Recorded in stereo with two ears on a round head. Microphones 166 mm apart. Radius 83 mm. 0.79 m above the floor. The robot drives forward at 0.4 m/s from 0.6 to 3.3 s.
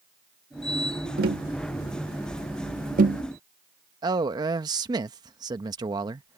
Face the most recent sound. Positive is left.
turn(degrees=-25)  # may be behind; listen again after turning